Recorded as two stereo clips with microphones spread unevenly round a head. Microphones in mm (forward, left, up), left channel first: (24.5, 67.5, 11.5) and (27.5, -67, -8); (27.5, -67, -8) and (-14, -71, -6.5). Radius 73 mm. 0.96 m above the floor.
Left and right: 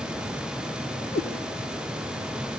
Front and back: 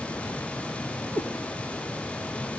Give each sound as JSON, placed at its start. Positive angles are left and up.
{"t": 1.1, "sound": "a cat meowing", "azimuth_deg": 55, "distance_m": 2.5}